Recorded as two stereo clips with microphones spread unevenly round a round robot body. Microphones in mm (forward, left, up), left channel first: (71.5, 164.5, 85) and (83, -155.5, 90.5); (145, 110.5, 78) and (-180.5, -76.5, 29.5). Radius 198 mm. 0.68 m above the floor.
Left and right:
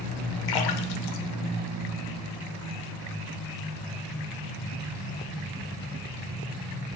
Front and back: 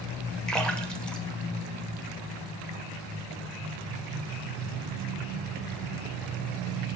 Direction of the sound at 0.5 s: 120° left.